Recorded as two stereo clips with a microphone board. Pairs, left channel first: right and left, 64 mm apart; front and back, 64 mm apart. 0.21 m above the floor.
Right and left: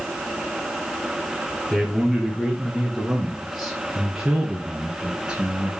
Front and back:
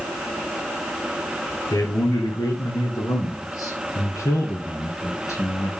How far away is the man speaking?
About 4.5 m.